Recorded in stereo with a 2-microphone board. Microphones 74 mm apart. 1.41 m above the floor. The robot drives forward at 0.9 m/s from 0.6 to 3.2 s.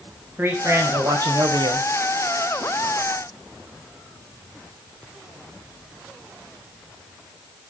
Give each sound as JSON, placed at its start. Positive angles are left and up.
{"t": 0.4, "sound": "a man speaking", "side_deg": -30, "distance_m": 1.4}